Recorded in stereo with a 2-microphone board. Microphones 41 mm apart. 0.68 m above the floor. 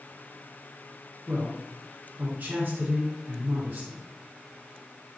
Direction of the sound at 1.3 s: 45° right (ahead or behind).